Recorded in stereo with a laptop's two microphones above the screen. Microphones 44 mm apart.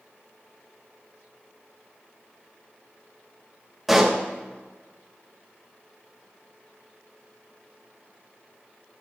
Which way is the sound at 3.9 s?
Centre (ahead or behind).